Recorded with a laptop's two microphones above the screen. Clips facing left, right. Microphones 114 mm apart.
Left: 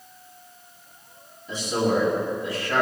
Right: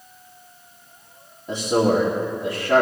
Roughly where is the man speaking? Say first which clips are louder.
Right 4 dB; right.